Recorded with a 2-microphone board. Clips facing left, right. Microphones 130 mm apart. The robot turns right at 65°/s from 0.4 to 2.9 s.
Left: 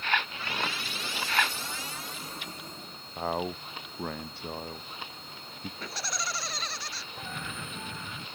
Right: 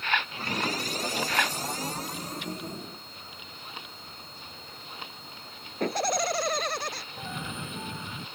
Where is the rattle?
No rattle in this recording.